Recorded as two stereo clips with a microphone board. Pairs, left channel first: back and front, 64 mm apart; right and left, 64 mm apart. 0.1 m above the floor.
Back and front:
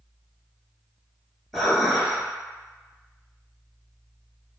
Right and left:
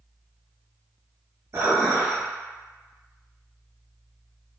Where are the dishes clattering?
90° left, 1.0 m.